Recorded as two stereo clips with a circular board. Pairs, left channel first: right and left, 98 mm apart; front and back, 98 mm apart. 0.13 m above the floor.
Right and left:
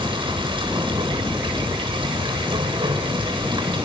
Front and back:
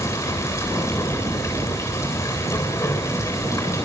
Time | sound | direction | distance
0.0 | running water | 55° left | 7.5 m